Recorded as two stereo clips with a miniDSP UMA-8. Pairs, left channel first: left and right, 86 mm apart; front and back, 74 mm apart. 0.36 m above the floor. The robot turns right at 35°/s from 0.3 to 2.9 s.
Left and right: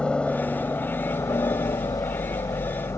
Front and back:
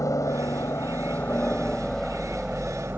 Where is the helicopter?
15° left; by 3.0 s 120° left.